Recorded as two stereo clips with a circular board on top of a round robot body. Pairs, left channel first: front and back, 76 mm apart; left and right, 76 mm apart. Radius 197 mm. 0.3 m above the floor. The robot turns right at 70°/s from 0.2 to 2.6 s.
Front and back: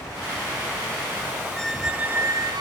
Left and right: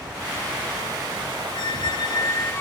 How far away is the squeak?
About 0.7 m.